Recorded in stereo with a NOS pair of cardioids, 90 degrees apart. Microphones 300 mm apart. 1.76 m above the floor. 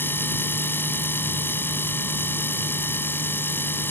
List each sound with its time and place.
0.0 s a machine running: 5° left